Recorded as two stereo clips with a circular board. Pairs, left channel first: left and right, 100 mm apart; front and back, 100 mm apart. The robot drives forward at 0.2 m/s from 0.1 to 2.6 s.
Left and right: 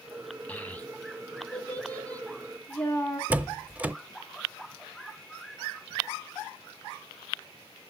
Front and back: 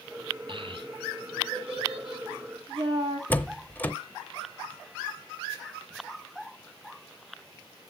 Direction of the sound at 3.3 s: 40° right.